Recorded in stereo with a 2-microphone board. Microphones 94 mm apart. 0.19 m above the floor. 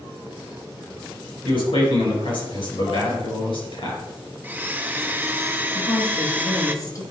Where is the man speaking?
65° left (ahead or behind), 4 m.